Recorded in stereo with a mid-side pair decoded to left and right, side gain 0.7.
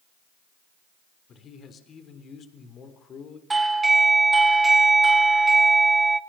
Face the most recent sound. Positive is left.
turn(degrees=-15)